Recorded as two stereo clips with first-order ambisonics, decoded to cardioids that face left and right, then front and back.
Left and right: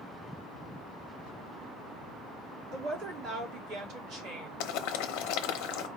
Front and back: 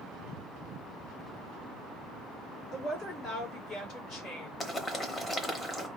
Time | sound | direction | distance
2.7 | a woman speaking | 50° right | 1.8 m
4.6 | boiling | 75° left | 0.8 m